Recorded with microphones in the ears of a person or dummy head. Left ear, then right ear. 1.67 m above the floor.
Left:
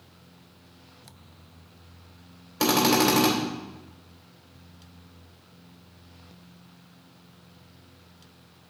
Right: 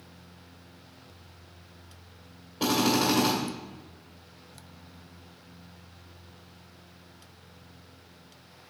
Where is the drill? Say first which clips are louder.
Left 4 dB; 50° left (ahead or behind), 2.5 m.